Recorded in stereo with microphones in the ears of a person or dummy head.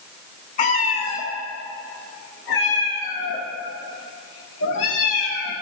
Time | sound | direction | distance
0.6 | a cat meowing | 40° left (ahead or behind) | 1.6 m